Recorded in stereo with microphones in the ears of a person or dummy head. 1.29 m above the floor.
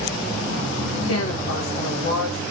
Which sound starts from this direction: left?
A woman speaking, at 1.1 s.